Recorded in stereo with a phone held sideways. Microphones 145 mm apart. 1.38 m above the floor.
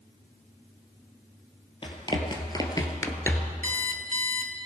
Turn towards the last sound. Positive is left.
turn(degrees=-60)  # may be behind; listen again after turning